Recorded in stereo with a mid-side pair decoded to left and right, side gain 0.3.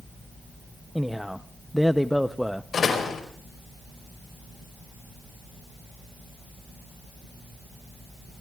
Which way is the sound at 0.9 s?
Straight ahead.